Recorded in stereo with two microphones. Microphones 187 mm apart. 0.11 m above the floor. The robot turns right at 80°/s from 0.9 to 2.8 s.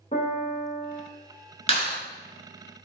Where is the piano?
40° left (ahead or behind), 0.6 m; by 1.0 s 30° left (ahead or behind), 0.6 m.